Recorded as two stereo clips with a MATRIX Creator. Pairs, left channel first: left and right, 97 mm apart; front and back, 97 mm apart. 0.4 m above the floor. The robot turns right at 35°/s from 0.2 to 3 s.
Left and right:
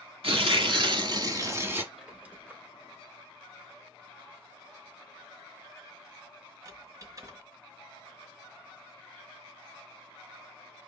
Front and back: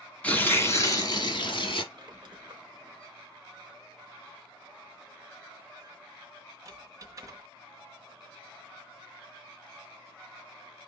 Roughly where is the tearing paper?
Right.